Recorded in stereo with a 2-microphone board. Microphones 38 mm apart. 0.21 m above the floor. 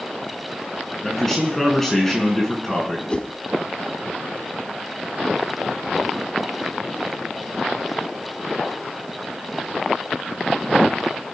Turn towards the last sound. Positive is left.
turn(degrees=25)  # may be behind; listen again after turning